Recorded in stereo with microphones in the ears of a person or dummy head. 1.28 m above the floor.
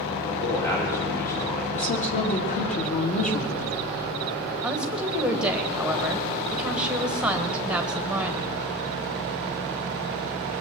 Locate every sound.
0.3 s a man speaking: 15° left (ahead or behind), 4 m
1.7 s a woman speaking: 40° left (ahead or behind), 2 m
4.6 s a woman speaking: 5° right (ahead or behind), 1.3 m